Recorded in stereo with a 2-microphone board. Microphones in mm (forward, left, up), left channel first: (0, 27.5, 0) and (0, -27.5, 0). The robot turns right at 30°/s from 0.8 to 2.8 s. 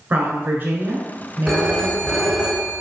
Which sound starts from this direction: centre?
A phone ringing, at 1.5 s.